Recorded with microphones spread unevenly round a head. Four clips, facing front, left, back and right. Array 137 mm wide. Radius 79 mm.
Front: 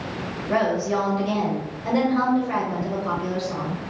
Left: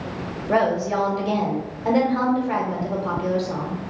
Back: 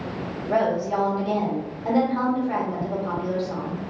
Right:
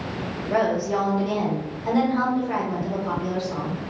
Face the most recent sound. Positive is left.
turn(degrees=60)